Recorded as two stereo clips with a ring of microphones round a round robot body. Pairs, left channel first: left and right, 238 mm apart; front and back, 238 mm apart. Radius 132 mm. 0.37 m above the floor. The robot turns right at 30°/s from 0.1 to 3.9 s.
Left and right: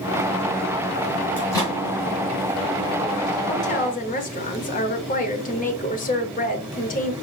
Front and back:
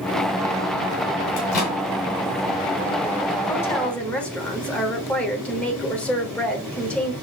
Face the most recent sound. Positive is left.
turn(degrees=80)